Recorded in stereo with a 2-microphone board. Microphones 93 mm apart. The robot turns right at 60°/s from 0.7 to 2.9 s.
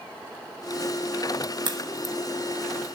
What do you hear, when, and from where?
1.6 s a crack: 50° right (ahead or behind), 1.1 m; by 2.1 s 55° right (ahead or behind), 1.1 m